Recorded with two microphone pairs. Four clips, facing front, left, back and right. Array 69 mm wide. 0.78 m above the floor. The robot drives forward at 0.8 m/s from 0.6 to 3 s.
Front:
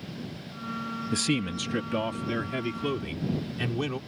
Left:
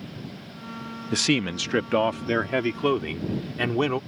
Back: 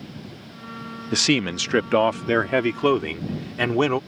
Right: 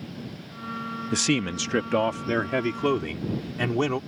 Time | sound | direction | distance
1.1 | a man speaking | 175° left | ?